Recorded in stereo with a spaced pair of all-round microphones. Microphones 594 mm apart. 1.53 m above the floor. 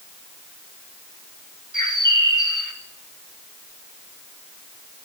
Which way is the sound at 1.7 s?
30° right (ahead or behind).